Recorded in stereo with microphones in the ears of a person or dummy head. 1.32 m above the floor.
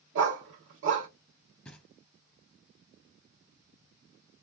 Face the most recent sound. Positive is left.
turn(degrees=5)  # may be behind; listen again after turning